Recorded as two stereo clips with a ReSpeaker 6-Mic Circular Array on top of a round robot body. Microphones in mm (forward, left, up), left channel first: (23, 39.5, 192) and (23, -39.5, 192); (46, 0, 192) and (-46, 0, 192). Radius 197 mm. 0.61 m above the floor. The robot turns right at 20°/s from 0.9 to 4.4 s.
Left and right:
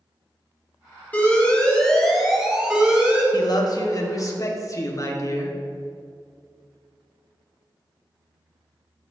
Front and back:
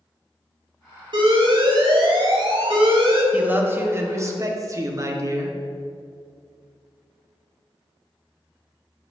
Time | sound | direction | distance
1.1 | an alarm | 160° left | 2.5 m
3.3 | a man speaking | 110° left | 1.7 m